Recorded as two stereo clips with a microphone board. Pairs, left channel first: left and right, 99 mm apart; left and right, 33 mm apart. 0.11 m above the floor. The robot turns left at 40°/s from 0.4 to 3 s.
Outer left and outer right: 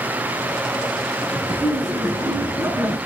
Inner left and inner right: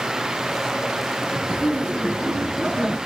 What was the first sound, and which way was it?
Laughter, 30° right (ahead or behind).